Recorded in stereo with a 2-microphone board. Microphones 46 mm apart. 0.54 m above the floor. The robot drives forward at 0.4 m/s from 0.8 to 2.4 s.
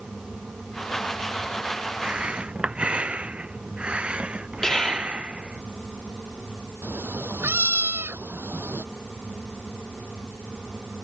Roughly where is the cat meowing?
Right.